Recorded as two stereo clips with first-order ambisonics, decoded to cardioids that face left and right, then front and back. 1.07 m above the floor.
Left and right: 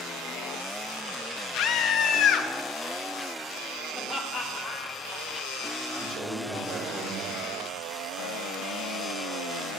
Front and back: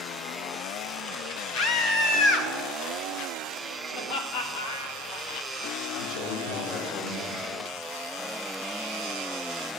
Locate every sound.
1.5 s a scream: 45° left, 1.2 m
3.9 s laughter: 5° left, 2.5 m
6.0 s a man speaking: 25° right, 4 m